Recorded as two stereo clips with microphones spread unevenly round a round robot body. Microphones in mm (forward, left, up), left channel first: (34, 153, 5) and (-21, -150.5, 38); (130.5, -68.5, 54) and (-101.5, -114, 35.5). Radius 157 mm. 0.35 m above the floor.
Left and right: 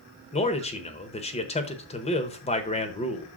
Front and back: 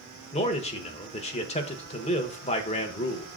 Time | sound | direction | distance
0.3 | a man speaking | 50° left | 0.9 m